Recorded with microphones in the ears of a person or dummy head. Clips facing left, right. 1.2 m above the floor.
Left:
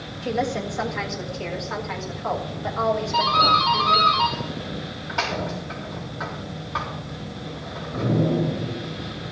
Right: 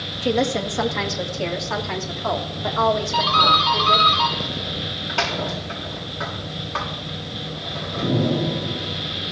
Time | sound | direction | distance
0.2 | a woman speaking | 60° right (ahead or behind) | 1.6 m
3.1 | a doorbell | 40° right (ahead or behind) | 4 m